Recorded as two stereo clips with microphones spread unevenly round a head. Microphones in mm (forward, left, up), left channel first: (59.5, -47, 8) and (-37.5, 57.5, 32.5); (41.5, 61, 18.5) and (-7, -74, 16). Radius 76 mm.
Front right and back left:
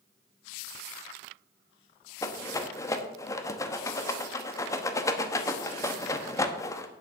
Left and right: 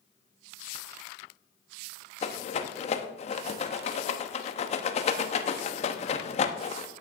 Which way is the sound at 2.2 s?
25° left.